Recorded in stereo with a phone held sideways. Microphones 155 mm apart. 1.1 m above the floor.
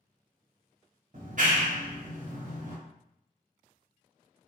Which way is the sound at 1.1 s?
55° right (ahead or behind).